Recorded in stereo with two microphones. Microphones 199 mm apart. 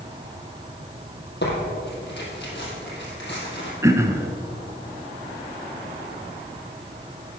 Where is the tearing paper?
60° left (ahead or behind), 3 m.